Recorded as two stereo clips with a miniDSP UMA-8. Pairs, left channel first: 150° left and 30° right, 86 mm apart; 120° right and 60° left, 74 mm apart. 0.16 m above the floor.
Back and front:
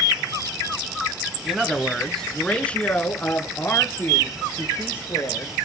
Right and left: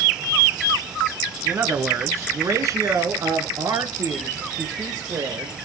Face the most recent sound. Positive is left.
turn(degrees=95)